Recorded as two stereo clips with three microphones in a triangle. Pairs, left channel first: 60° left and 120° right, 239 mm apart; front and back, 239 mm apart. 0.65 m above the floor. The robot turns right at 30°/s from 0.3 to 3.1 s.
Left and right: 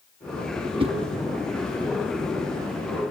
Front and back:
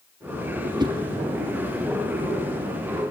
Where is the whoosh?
140° right, 1.2 m; by 0.9 s 135° right, 1.2 m.